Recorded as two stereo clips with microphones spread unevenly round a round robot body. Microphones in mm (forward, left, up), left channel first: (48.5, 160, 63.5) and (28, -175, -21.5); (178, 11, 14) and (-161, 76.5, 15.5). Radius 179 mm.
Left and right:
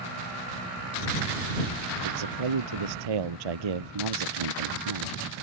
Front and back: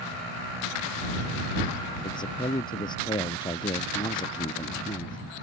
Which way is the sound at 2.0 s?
90° right.